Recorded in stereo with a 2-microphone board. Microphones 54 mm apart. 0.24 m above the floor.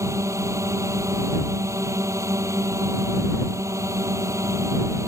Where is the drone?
70° right (ahead or behind).